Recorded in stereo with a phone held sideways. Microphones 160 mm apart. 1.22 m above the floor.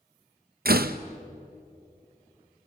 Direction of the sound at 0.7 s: 70° right (ahead or behind).